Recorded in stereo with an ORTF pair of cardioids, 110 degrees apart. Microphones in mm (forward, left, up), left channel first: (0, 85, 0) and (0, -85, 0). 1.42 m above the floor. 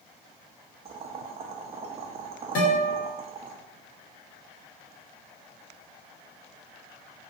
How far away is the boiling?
About 0.5 m.